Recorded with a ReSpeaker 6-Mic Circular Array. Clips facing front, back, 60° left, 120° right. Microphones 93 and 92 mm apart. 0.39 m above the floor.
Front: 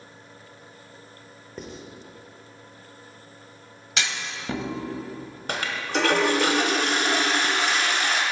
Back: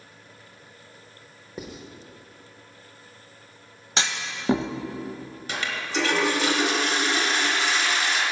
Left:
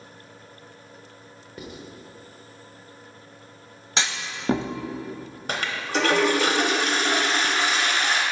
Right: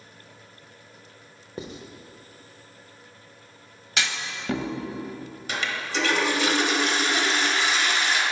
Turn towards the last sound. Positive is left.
turn(degrees=30)